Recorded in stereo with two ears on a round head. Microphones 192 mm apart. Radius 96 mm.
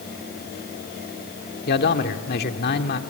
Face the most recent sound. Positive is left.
turn(degrees=50)  # may be behind; listen again after turning